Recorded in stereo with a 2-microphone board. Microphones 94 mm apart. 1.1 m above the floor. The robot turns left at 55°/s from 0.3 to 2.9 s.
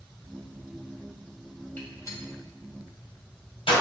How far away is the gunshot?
About 2.5 m.